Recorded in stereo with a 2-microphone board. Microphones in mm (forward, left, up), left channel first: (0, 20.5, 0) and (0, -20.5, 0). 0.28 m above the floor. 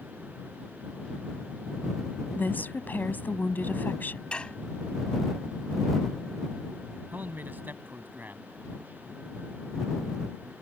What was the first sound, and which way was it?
A woman speaking, 55° left (ahead or behind).